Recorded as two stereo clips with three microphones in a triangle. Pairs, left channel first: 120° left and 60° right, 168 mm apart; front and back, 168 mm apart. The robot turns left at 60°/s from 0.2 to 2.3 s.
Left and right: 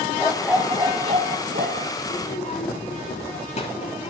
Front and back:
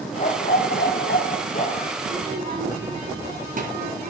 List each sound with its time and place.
0.2 s a dog barking: 40° left, 1.7 m; by 1.9 s 60° right, 1.7 m
2.0 s a child speaking: 175° left, 2 m; by 4.1 s 160° left, 2 m